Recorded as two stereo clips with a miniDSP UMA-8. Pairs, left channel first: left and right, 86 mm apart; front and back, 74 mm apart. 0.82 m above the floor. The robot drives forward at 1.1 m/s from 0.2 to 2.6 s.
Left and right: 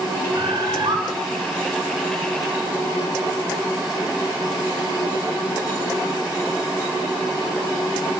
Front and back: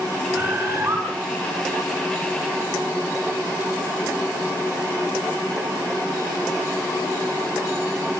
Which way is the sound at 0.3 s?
120° right.